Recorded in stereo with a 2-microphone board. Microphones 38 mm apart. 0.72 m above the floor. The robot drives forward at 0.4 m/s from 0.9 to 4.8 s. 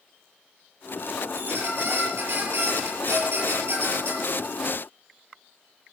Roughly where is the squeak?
Right.